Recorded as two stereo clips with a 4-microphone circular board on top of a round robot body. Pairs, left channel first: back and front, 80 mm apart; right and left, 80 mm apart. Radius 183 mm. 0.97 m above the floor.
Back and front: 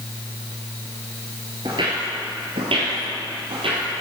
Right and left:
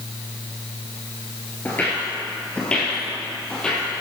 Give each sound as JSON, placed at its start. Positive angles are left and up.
{"t": 1.6, "sound": "footsteps", "azimuth_deg": -25, "distance_m": 1.0}